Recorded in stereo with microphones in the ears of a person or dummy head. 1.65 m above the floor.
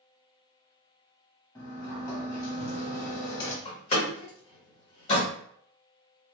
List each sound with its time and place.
1.6 s a sliding door: 20° left (ahead or behind), 0.8 m
3.6 s a door slam: 30° left (ahead or behind), 1.3 m